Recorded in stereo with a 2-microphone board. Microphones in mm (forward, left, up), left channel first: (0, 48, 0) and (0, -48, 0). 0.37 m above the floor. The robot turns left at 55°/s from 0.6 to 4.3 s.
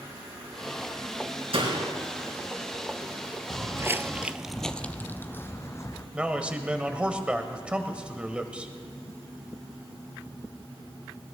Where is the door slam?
75° right (ahead or behind), 4 m; by 1.9 s 60° right (ahead or behind), 4 m.